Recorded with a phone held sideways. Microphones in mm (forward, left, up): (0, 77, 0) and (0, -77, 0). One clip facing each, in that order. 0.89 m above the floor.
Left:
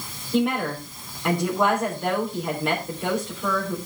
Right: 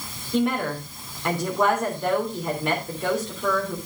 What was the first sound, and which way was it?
A woman speaking, centre (ahead or behind).